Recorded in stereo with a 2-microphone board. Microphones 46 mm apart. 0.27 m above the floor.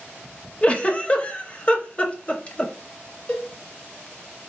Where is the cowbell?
15° left (ahead or behind), 1.2 m.